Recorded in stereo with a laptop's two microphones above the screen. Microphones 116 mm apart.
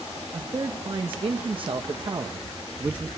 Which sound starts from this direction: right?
A man speaking, at 0.3 s.